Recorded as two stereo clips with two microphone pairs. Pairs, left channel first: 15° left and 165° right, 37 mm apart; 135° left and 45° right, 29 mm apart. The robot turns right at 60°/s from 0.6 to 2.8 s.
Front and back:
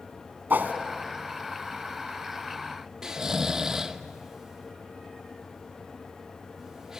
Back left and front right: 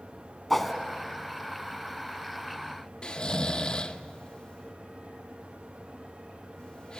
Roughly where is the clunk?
No clunk in this recording.